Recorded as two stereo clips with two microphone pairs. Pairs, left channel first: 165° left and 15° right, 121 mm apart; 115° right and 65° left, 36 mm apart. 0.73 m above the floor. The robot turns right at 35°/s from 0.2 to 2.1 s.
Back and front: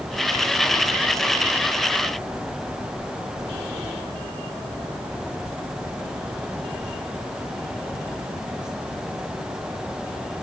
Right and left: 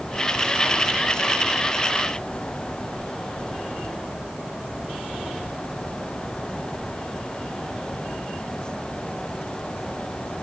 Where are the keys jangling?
No keys jangling in this recording.